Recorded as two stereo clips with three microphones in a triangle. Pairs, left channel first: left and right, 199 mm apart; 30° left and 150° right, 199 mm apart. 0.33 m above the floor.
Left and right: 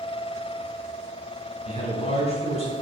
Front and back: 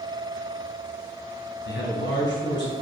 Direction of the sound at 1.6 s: 35° left.